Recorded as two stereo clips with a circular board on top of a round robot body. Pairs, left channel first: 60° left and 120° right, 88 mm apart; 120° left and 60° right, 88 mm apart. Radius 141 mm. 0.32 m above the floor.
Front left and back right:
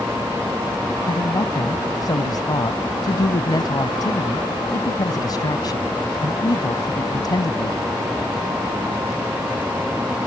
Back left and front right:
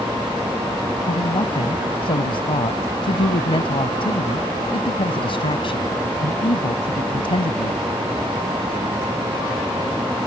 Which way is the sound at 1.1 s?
105° left.